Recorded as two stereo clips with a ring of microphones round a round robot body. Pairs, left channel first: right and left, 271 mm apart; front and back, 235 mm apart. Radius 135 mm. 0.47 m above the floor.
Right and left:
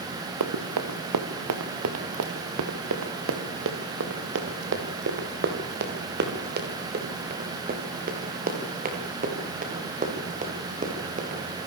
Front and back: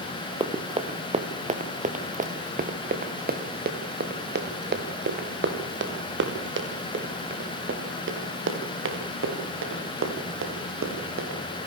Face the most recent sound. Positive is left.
turn(degrees=155)